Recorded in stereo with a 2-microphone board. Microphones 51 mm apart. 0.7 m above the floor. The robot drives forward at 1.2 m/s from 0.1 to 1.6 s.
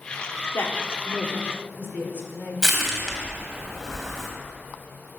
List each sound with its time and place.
0.5 s a woman speaking: 60° left (ahead or behind), 1.8 m; by 2.5 s 40° left (ahead or behind), 2.5 m
2.6 s crushing: 5° left (ahead or behind), 3 m